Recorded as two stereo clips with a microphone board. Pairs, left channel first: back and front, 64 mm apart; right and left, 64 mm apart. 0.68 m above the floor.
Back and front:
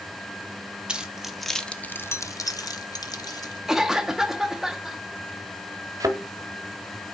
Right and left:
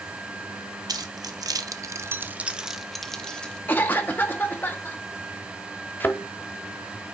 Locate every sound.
0.9 s keys jangling: 75° left, 0.8 m; by 3.6 s 165° right, 1.0 m
3.7 s a cough: 80° right, 0.7 m
6.0 s a thud: 25° right, 1.0 m